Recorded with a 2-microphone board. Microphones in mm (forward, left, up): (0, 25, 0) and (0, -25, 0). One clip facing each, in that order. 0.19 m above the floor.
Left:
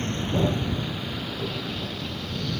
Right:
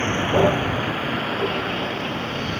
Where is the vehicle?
50° right (ahead or behind); by 2.6 s 45° right (ahead or behind).